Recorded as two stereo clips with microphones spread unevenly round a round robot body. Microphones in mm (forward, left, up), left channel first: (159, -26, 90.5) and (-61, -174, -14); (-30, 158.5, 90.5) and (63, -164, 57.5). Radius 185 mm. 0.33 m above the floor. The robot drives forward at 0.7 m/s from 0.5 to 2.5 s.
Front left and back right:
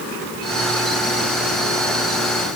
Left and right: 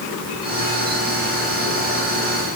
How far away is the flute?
No flute in this recording.